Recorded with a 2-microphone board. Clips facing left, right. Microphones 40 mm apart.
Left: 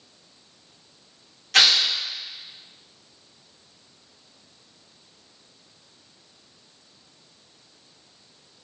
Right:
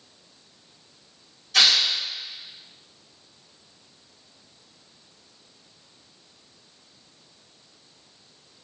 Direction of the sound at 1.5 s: 85° left.